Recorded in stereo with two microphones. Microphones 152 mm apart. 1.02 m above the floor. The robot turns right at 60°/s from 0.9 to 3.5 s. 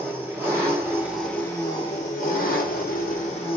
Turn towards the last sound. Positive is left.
turn(degrees=140)